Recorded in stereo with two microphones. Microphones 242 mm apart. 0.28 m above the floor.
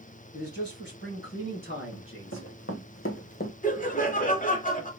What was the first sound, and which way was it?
A man speaking, 45° left (ahead or behind).